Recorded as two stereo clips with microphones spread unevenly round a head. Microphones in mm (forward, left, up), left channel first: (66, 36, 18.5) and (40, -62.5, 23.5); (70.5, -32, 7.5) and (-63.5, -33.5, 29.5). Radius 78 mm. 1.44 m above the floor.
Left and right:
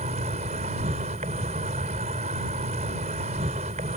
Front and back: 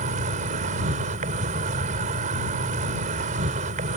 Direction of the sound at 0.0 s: 150° right.